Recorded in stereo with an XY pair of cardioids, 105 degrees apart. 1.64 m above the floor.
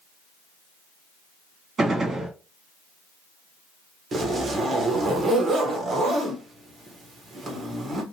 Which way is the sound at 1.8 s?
45° right.